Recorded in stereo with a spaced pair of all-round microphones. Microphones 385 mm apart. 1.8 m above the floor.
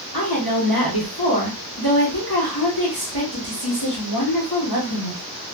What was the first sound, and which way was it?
A woman speaking, 65° left (ahead or behind).